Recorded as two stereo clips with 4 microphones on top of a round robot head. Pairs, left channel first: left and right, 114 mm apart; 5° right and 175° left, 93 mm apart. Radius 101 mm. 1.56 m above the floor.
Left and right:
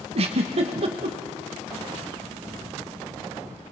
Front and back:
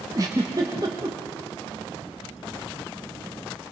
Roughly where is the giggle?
Behind right.